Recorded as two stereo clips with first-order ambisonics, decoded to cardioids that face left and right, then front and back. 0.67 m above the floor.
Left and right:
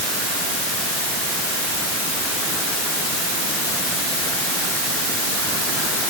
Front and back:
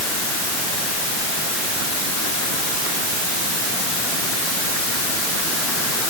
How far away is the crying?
No crying in this recording.